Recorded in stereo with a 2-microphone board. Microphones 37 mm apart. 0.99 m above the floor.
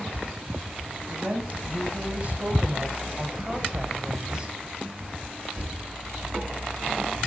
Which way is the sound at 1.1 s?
40° right (ahead or behind).